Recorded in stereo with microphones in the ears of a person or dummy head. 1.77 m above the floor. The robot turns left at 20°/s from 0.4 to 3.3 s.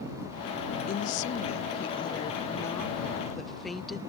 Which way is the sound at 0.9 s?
45° left.